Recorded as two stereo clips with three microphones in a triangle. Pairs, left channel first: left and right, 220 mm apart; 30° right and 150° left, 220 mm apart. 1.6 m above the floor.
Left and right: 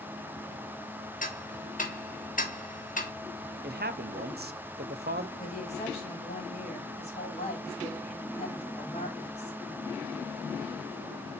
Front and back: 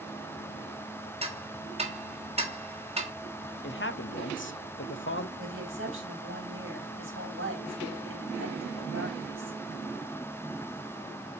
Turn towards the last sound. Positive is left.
turn(degrees=145)